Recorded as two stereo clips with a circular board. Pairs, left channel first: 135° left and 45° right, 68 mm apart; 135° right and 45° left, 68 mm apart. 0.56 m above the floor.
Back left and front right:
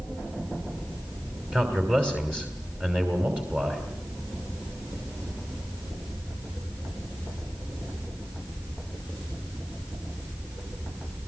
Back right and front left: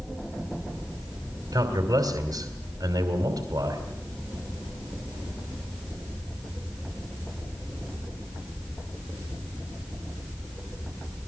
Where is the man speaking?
20° left, 3 m.